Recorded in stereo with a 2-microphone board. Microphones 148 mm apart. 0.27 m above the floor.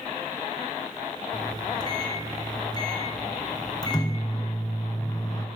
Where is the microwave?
25° left (ahead or behind), 3 m.